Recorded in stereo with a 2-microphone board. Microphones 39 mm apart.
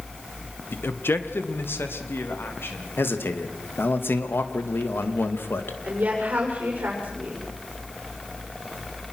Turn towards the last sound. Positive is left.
turn(degrees=-50)  # may be behind; listen again after turning